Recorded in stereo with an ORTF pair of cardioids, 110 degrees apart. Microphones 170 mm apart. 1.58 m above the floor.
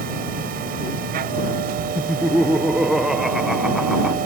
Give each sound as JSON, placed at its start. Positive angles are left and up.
{"t": 0.0, "sound": "a machine running", "azimuth_deg": -65}
{"t": 1.9, "sound": "laughter", "azimuth_deg": 0}